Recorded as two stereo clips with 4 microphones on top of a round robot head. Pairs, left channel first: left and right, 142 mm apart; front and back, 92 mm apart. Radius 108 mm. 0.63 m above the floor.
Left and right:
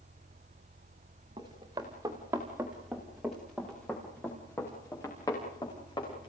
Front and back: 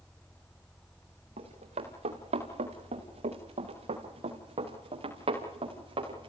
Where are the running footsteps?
155° right, 4 m; by 6.3 s 155° left, 6.5 m.